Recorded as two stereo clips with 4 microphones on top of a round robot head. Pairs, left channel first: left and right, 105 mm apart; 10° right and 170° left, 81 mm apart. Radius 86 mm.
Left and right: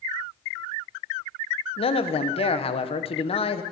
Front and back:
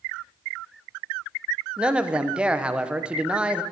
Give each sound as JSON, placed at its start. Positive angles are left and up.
{"t": 1.8, "sound": "a man speaking", "azimuth_deg": 95, "distance_m": 1.0}